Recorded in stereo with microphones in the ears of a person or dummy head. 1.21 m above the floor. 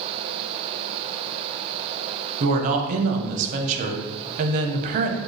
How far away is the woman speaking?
About 0.5 m.